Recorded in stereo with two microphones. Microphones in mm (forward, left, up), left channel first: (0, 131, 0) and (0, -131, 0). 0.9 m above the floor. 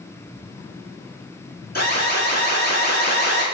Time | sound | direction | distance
1.8 | an alarm | 35° left (ahead or behind) | 1.0 m